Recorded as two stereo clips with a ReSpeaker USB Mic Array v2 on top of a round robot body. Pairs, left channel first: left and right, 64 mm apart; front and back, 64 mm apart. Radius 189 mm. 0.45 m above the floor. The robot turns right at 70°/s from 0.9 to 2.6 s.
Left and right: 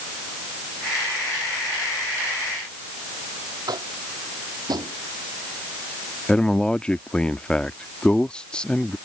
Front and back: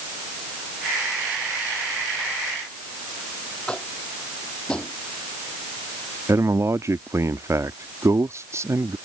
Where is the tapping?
75° right.